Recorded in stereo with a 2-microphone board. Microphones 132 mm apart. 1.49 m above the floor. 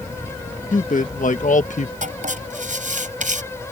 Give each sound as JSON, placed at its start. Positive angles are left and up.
{"t": 0.7, "sound": "a man speaking", "side_deg": 80}
{"t": 2.0, "sound": "writing", "side_deg": -75}